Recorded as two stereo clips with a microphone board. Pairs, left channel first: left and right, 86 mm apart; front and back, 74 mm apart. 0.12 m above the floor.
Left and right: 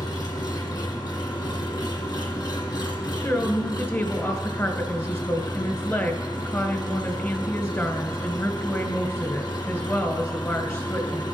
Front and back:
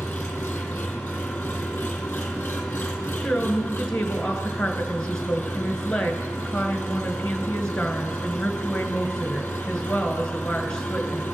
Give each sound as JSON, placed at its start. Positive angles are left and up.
{"t": 0.0, "sound": "an engine running", "azimuth_deg": 65, "distance_m": 1.8}
{"t": 3.2, "sound": "a woman speaking", "azimuth_deg": 70, "distance_m": 1.5}